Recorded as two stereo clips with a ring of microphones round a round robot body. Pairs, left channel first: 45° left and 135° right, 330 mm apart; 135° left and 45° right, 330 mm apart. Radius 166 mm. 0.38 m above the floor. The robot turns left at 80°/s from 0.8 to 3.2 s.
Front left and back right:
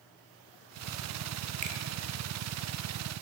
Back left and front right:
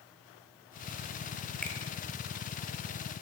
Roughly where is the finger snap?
Behind right.